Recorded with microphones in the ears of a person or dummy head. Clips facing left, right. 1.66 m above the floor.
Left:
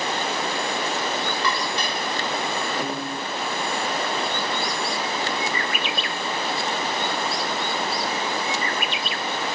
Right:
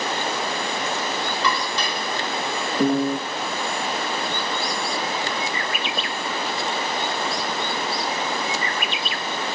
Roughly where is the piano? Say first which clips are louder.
Right 9 dB; right.